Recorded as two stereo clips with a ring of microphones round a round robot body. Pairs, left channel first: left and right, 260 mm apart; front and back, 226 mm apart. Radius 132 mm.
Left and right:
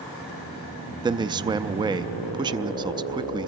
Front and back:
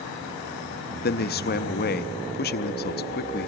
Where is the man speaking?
25° right, 0.6 m.